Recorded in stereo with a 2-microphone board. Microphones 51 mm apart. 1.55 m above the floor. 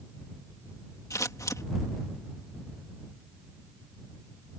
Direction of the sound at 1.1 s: 85° left.